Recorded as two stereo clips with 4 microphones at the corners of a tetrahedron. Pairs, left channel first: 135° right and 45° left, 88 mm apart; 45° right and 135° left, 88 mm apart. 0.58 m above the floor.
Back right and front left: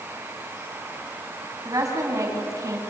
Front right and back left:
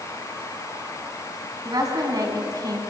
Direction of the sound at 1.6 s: 90° left.